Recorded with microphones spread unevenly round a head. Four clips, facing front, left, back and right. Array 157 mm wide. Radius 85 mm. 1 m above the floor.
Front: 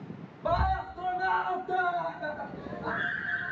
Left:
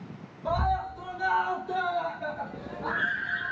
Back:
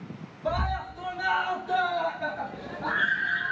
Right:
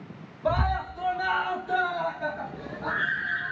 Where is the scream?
95° right, 1.5 m; by 3.5 s 165° right, 3 m.